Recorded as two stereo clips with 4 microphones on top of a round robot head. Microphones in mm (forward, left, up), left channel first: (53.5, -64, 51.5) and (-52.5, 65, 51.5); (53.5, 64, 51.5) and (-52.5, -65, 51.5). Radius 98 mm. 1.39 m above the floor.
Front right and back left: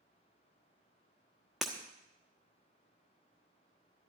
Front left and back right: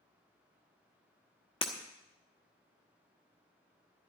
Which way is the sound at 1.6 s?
45° left.